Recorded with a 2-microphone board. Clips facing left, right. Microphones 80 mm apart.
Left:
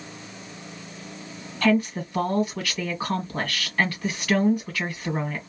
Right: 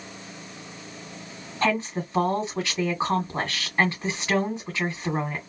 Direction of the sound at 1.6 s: 25° right (ahead or behind).